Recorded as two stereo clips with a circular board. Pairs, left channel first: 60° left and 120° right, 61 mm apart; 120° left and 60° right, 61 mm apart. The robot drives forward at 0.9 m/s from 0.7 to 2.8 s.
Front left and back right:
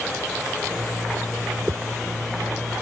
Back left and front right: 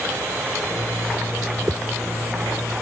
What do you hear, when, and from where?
1.7 s a whoosh: 80° right; by 2.8 s 85° right